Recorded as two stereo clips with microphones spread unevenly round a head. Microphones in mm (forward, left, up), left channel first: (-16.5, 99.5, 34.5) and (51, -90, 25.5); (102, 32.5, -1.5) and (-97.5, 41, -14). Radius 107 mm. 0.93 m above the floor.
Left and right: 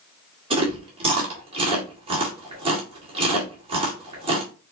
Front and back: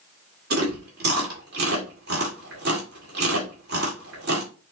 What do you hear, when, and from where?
0.5 s chewing: 135° right, 2.0 m